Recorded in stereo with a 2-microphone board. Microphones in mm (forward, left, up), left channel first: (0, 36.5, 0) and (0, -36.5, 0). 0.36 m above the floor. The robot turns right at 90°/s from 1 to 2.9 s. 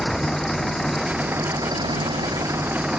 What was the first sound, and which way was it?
An engine running, straight behind.